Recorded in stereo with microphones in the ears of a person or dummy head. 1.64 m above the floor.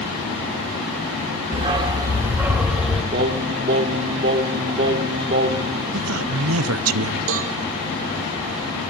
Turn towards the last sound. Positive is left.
turn(degrees=-80)